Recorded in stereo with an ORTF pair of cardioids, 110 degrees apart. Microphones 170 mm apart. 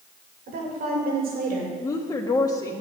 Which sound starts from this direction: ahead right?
A woman speaking, at 0.5 s.